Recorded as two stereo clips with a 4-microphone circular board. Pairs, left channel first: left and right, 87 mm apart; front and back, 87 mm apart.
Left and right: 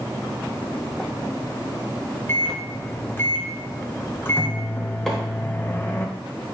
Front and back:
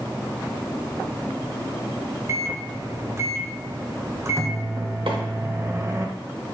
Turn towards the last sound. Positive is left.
turn(degrees=175)